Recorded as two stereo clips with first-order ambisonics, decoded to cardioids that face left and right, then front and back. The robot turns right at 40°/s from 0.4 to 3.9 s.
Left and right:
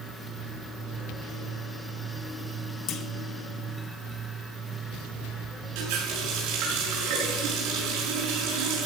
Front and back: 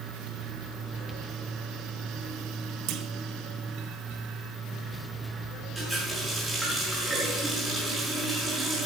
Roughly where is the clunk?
Behind left.